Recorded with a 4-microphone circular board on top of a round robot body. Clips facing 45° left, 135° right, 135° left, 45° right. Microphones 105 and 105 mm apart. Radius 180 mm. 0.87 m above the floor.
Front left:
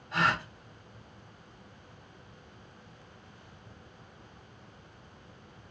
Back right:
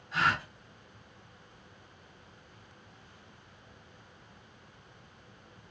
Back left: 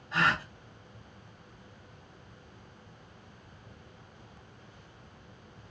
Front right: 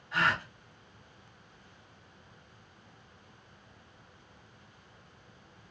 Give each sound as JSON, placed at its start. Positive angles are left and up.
{"t": 0.1, "sound": "a gasp", "azimuth_deg": 75, "distance_m": 1.6}